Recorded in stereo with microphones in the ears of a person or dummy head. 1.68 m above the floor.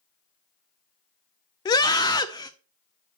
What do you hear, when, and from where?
1.6 s a scream: 20° left (ahead or behind), 0.5 m